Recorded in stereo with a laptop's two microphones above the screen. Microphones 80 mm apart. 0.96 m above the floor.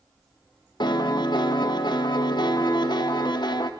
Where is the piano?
70° left (ahead or behind), 1.2 m.